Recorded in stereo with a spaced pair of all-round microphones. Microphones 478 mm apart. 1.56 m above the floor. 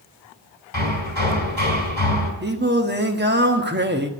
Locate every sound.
0.7 s hammering: 55° left (ahead or behind), 4 m
2.4 s singing: 20° right (ahead or behind), 1.2 m